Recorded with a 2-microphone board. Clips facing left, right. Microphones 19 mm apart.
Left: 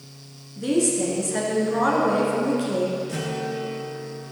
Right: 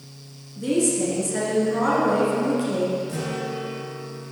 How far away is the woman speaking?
About 3 m.